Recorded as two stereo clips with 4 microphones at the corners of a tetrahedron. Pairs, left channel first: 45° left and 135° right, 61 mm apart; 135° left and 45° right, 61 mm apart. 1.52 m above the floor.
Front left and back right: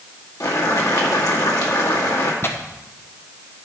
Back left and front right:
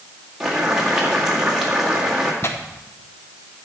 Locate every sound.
0.4 s boiling: 30° left, 2 m
2.4 s tearing paper: 95° left, 1.0 m